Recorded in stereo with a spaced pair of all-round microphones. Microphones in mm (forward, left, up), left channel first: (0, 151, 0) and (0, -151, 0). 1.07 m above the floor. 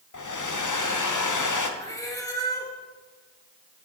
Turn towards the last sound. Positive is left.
turn(degrees=10)  # may be behind; listen again after turning